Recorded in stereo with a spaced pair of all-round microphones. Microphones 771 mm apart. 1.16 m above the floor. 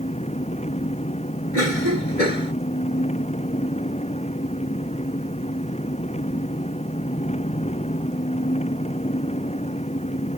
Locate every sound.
0.0 s an engine running: 10° left (ahead or behind)
1.5 s a cough: 75° left (ahead or behind)